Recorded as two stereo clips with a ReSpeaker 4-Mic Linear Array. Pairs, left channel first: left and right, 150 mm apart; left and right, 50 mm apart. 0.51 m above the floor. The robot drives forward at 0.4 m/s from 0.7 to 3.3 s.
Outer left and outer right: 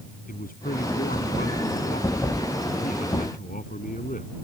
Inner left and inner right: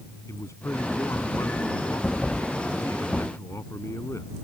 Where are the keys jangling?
No keys jangling in this recording.